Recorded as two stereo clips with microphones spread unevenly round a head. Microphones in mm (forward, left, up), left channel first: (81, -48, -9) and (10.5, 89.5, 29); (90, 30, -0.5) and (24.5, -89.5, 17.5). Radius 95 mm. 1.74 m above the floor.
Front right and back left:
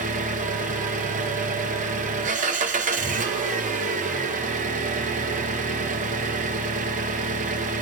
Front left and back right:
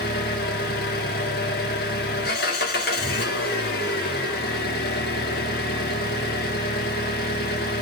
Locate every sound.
0.0 s an engine running: 90° left, 1.6 m